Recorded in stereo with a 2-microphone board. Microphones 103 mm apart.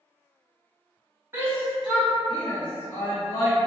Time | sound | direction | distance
1.3 | a shout | 20° right (ahead or behind) | 1.3 m